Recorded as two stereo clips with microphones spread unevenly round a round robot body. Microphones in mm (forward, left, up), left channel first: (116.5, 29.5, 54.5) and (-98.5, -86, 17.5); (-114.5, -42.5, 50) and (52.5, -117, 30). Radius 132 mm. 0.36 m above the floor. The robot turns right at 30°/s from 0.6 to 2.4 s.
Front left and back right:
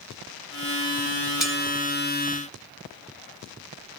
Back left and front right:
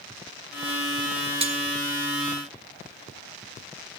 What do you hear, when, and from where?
1.4 s cutlery clinking: 70° right, 1.0 m; by 1.6 s 65° right, 1.0 m